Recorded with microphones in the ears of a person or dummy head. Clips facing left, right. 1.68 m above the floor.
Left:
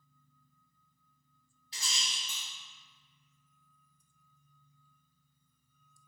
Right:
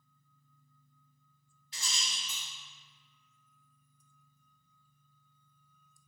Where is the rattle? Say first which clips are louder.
Even; 30° left (ahead or behind), 1.7 m.